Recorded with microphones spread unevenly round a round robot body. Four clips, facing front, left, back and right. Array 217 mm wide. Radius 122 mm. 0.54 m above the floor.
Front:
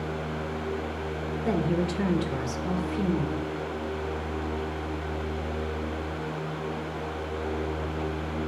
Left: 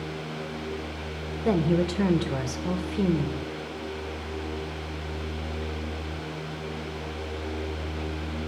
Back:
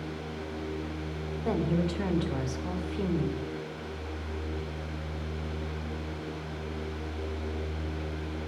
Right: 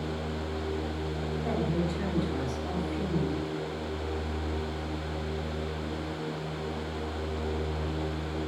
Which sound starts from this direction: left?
A woman speaking, at 1.4 s.